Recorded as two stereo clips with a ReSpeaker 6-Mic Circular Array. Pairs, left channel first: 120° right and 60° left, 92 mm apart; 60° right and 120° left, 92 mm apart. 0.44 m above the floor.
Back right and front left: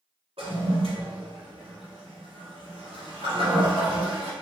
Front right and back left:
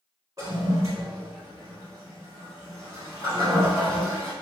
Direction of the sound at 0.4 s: 65° left.